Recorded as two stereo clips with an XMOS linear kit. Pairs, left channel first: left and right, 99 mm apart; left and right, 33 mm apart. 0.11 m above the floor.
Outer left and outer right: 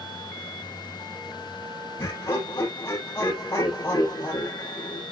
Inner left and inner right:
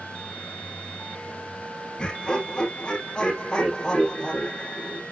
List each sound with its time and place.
2.0 s laughter: 35° left (ahead or behind), 3.5 m